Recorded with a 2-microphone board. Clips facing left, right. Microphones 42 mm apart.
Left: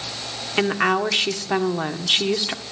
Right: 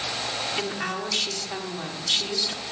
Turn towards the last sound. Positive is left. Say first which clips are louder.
# left 9 dB
turn(degrees=40)  # may be behind; listen again after turning